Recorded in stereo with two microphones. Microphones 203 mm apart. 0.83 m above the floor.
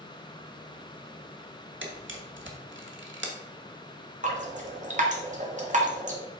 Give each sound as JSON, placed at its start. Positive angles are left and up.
{"t": 1.8, "sound": "a camera shutter", "side_deg": -85, "distance_m": 1.4}
{"t": 4.2, "sound": "dripping", "side_deg": -40, "distance_m": 1.4}